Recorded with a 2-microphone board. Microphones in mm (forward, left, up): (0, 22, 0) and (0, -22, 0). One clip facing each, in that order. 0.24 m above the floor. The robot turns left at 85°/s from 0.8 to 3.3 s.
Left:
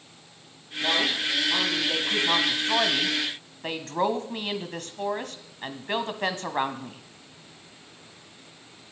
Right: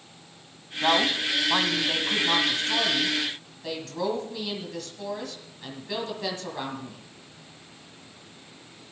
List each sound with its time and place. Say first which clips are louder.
0.8 s a woman speaking: right 2 dB; 60° right, 1.5 m; by 7.0 s 85° left, 1.5 m